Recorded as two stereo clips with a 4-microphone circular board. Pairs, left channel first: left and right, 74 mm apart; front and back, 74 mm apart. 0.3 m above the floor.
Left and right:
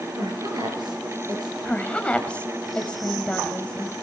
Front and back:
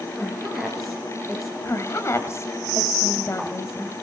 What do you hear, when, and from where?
0.1 s a woman speaking: 90° right, 5 m
1.6 s a woman speaking: 25° left, 2.0 m